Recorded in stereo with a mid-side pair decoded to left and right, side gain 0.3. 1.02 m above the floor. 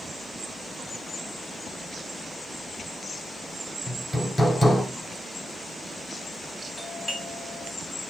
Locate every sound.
3.9 s hammering: 10° left, 3 m
6.8 s a doorbell: 10° right, 4 m